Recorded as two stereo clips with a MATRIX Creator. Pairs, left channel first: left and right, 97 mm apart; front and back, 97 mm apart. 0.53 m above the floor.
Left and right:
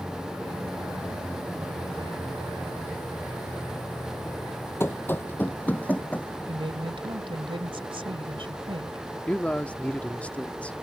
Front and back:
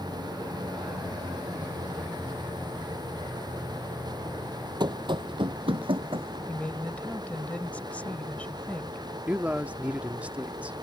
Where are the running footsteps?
150° left; by 6.4 s 165° left.